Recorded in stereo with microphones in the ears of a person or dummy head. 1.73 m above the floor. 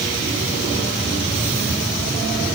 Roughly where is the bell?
I don't hear a bell.